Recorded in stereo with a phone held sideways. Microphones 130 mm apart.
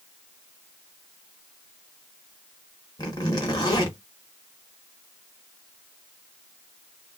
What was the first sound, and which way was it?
A zipper, 30° left (ahead or behind).